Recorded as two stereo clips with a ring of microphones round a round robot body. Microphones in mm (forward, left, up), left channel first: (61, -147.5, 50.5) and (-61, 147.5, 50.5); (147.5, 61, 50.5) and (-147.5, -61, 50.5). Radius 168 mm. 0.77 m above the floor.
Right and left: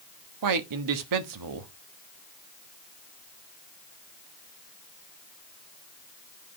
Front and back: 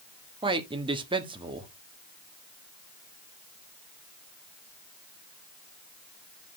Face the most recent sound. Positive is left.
turn(degrees=130)